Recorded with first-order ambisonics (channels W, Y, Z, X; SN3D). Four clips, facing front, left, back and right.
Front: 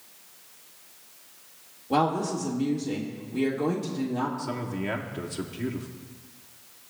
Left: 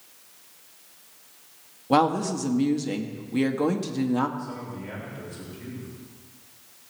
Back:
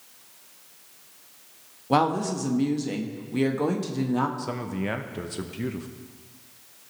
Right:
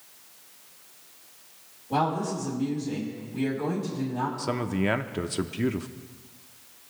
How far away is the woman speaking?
About 1.4 m.